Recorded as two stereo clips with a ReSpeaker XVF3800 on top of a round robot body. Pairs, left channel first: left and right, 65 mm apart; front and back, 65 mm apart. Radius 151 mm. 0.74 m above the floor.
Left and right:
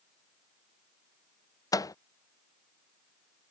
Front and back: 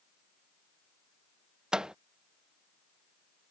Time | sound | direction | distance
1.7 | a microwave | 105° left | ?